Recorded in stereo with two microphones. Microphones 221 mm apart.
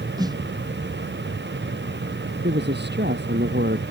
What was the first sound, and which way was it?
A snare drum, 15° right (ahead or behind).